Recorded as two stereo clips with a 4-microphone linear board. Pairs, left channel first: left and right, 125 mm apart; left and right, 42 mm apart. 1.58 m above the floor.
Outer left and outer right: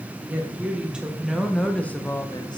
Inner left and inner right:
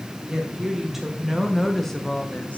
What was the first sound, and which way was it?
A woman speaking, 15° right (ahead or behind).